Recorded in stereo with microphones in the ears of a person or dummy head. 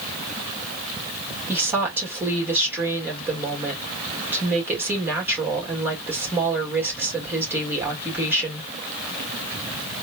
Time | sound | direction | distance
1.5 | a woman speaking | 10° right (ahead or behind) | 1.9 m